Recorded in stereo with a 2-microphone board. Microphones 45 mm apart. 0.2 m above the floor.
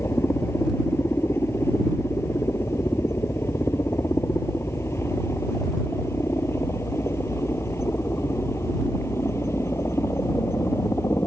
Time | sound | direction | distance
0.0 | a helicopter | 70° left (ahead or behind) | ?